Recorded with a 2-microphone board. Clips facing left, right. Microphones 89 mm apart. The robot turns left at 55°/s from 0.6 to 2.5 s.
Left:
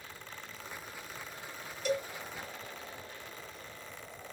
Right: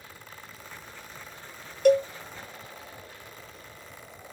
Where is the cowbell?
60° right (ahead or behind), 0.5 m; by 2.1 s 65° right (ahead or behind), 0.5 m.